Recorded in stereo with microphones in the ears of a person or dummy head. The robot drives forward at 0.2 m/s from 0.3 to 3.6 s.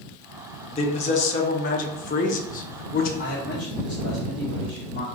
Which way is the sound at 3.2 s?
50° left (ahead or behind).